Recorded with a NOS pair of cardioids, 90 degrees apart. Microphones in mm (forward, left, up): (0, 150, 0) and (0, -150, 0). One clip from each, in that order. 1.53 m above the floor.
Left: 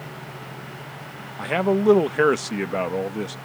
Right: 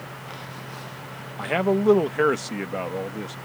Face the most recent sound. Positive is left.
turn(degrees=40)